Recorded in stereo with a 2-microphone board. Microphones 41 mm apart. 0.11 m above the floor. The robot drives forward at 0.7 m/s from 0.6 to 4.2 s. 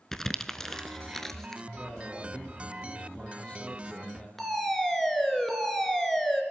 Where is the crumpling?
10° left (ahead or behind), 0.9 m; by 1.6 s 5° left (ahead or behind), 1.3 m.